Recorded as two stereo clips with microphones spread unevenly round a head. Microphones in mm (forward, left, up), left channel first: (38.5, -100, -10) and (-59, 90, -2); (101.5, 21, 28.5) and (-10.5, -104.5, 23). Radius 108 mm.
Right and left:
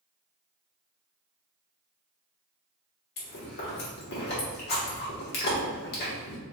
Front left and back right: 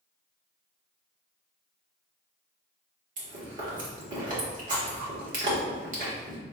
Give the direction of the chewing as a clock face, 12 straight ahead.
3 o'clock.